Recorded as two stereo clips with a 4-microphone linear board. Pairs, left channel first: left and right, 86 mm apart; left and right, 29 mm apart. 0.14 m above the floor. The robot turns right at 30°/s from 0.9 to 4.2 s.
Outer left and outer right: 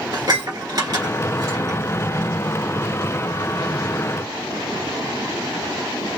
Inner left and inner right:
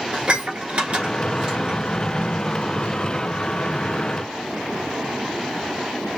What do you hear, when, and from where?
0.1 s dishes clattering: 50° right (ahead or behind), 1.2 m; by 1.8 s 35° right (ahead or behind), 1.2 m